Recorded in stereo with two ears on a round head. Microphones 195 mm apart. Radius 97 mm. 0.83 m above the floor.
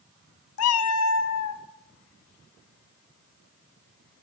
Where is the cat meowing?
70° left (ahead or behind), 0.6 m; by 1.6 s 80° left, 1.2 m.